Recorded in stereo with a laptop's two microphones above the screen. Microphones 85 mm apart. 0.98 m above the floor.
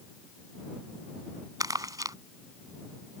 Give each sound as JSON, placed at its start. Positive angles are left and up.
{"t": 1.6, "sound": "crumpling", "side_deg": -50}